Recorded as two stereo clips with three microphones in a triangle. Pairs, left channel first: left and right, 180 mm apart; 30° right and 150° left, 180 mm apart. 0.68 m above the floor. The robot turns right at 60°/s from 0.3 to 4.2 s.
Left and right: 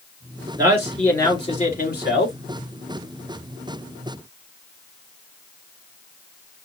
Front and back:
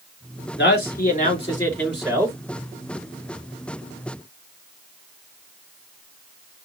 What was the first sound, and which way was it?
A man speaking, 25° right.